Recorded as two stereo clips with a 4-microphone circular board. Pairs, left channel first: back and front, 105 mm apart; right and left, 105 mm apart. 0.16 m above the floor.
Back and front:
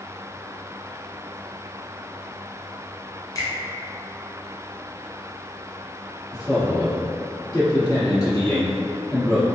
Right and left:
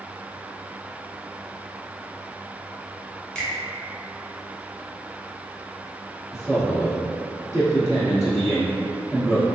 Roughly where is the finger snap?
Behind.